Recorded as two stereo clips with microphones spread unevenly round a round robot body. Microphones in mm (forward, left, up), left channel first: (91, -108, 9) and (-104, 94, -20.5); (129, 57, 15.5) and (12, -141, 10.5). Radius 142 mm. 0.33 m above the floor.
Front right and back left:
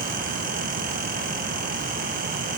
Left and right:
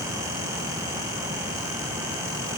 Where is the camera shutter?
I don't hear a camera shutter.